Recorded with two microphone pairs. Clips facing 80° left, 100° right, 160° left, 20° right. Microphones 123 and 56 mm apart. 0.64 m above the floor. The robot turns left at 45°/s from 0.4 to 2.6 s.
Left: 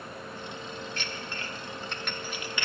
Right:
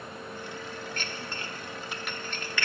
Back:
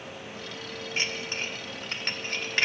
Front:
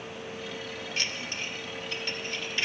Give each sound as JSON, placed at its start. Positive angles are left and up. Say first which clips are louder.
{"t": 1.0, "sound": "dishes clattering", "louder": "even, back 4 dB", "azimuth_deg": -140, "distance_m": 0.9}